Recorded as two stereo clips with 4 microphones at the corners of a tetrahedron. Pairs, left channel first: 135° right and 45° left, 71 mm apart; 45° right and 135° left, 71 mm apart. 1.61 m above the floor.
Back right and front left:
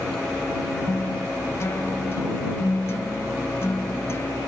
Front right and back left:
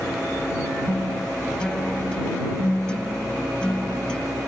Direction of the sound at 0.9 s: 115° right.